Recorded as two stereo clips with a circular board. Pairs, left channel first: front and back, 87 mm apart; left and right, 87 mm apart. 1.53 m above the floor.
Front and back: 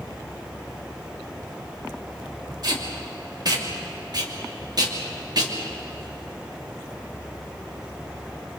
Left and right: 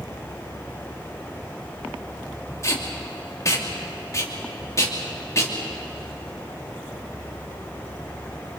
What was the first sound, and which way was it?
Tape being pulled, 140° left.